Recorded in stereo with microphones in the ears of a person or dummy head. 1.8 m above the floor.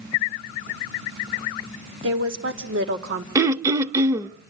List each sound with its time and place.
2.0 s a woman speaking: 70° right (ahead or behind), 2.5 m; by 3.2 s 65° right (ahead or behind), 1.9 m
3.4 s throat clearing: 20° right (ahead or behind), 0.6 m